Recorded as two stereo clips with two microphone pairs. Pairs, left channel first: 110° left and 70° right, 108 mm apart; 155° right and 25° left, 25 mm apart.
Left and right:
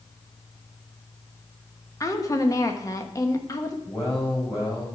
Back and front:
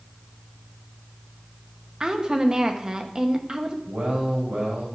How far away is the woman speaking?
About 0.9 m.